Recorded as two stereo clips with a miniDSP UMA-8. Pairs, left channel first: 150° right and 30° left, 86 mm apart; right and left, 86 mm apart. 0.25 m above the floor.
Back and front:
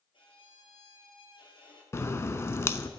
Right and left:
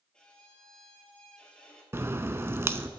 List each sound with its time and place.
0.1 s a violin: 170° right, 2.0 m
1.9 s a crack: 150° left, 0.6 m